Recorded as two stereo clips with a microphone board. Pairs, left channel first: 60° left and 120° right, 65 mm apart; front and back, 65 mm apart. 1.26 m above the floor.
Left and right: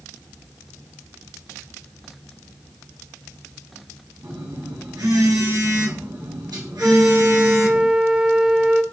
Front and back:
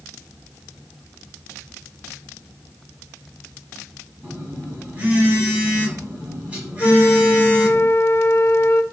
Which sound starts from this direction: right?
A phone buzzing, at 4.2 s.